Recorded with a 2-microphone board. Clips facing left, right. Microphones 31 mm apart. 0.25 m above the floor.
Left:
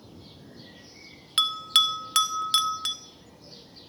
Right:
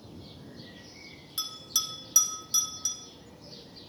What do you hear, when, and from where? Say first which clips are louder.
1.4 s a bell: left 12 dB; 70° left (ahead or behind), 0.6 m